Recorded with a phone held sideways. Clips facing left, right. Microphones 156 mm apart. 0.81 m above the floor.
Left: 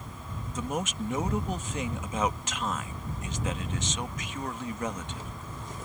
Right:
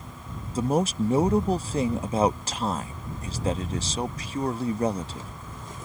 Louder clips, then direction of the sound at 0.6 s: Right 9 dB; 35° right (ahead or behind).